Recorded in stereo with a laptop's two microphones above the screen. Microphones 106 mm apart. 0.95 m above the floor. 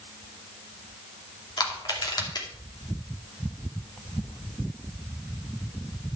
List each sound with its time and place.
1.6 s crushing: 40° left (ahead or behind), 2.5 m